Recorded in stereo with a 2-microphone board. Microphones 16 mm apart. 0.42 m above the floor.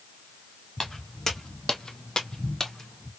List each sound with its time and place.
0.8 s footsteps: 25° left (ahead or behind), 1.5 m; by 3.1 s 10° left (ahead or behind), 1.2 m